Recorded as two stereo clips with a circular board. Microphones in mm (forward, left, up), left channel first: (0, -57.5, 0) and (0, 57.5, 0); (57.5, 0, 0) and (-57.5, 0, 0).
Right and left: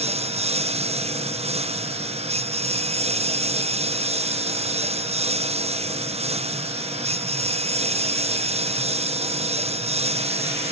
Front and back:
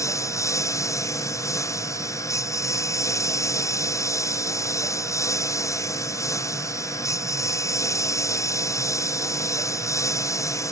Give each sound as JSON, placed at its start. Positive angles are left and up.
{"t": 0.0, "sound": "a lawn mower", "azimuth_deg": 65}